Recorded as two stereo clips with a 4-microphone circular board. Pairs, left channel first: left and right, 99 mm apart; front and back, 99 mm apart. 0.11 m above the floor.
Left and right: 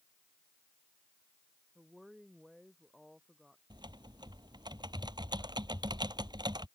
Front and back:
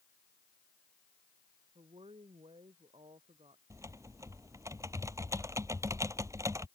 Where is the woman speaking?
Straight behind.